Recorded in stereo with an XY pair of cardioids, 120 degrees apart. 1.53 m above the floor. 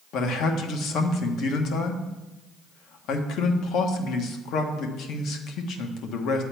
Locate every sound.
0.1 s a man speaking: 70° left, 1.4 m